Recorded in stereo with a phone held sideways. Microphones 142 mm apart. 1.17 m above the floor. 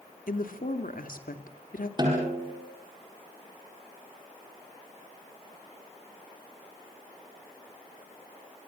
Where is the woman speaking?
90° left, 2.5 m.